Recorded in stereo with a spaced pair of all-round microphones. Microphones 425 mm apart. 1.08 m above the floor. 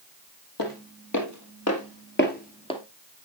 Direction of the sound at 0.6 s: 50° left (ahead or behind).